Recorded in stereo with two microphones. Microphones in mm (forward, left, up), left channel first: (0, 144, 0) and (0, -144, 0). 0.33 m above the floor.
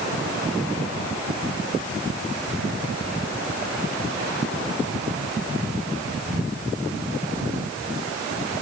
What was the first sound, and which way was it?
Only background noise.